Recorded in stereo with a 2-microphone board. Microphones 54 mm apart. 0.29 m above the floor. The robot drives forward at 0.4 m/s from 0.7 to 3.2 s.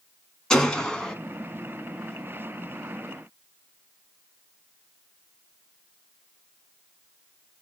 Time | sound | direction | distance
0.5 | a gunshot | 15° left (ahead or behind) | 1.0 m